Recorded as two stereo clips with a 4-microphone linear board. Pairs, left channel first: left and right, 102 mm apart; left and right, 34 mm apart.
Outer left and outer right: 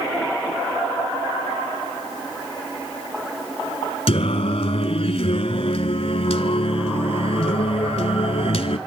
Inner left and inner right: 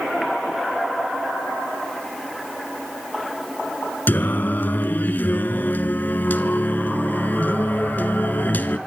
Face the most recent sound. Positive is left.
turn(degrees=75)  # may be behind; listen again after turning